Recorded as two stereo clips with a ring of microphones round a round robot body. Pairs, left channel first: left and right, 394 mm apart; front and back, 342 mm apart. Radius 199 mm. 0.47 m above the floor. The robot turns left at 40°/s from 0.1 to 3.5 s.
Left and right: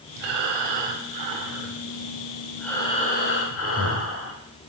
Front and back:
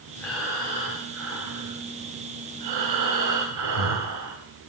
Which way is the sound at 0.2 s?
85° right.